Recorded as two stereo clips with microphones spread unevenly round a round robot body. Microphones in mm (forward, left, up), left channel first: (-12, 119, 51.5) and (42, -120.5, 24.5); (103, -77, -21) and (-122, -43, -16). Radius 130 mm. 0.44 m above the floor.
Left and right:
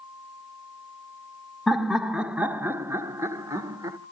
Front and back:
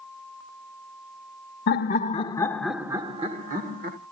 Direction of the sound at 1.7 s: 5° left.